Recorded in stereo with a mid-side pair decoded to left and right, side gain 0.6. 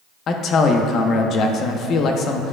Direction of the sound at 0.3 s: 50° left.